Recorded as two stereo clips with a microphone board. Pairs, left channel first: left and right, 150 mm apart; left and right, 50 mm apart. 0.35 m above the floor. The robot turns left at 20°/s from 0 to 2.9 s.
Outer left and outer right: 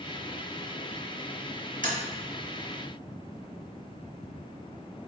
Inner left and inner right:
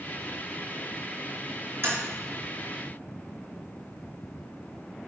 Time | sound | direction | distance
1.8 | tapping | 60° right (ahead or behind) | 3 m